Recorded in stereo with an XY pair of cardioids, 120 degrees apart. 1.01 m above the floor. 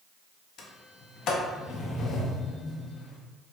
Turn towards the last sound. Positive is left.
turn(degrees=60)